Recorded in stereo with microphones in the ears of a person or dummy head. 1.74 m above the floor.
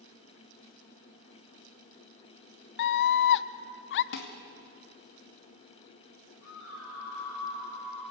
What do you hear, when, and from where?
2.8 s a scream: 65° left (ahead or behind), 0.8 m
4.1 s dishes clattering: 70° left (ahead or behind), 2 m
6.4 s a scream: 70° left (ahead or behind), 8.5 m